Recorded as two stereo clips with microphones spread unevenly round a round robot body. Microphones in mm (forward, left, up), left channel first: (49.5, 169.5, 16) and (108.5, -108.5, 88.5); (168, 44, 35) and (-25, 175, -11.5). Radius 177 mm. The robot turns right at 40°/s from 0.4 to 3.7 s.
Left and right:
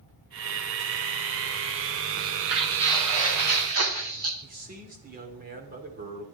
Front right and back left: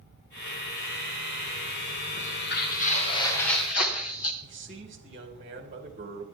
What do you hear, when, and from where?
2.2 s footsteps: 105° right, 5 m; by 4.3 s 45° right, 3 m
4.4 s a man speaking: 145° right, 3 m